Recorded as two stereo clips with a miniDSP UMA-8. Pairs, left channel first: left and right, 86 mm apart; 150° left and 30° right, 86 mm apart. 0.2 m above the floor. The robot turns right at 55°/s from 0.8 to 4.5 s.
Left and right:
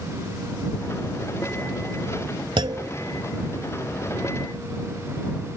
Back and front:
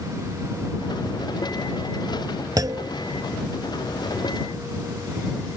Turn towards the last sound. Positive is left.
turn(degrees=30)